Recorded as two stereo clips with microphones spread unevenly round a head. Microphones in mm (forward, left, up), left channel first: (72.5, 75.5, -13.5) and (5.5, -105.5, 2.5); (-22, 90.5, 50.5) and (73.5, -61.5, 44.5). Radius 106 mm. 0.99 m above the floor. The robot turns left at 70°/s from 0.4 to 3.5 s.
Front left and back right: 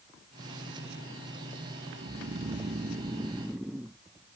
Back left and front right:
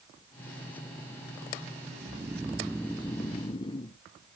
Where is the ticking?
I don't hear ticking.